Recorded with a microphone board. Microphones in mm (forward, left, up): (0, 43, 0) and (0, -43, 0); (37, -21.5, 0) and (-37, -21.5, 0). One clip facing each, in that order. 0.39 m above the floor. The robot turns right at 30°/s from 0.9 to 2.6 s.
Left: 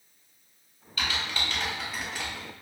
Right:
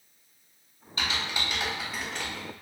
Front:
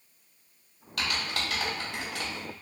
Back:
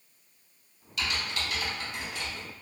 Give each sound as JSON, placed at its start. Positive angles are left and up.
{"t": 1.0, "sound": "typing on a keyboard", "azimuth_deg": -30, "distance_m": 0.7}